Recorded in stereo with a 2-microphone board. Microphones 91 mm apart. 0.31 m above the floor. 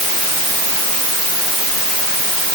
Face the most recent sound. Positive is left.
No sound to turn to.